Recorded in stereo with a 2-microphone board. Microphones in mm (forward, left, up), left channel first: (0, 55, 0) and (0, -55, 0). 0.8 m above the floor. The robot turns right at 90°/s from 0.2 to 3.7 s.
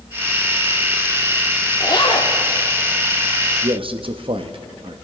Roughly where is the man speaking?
Right.